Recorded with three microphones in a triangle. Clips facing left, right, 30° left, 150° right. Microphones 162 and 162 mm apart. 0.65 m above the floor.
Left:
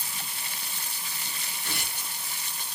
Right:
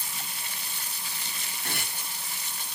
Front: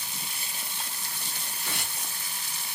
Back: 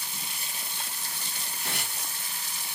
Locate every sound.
1.6 s tearing paper: 125° right, 3 m